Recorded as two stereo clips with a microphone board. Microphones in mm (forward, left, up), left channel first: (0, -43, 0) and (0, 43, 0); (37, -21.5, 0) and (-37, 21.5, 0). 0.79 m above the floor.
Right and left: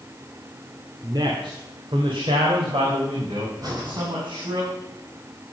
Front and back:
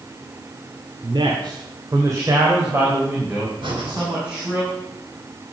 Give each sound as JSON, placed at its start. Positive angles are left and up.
{"t": 1.0, "sound": "a man speaking", "azimuth_deg": 130, "distance_m": 1.7}
{"t": 3.6, "sound": "breathing", "azimuth_deg": 130, "distance_m": 4.5}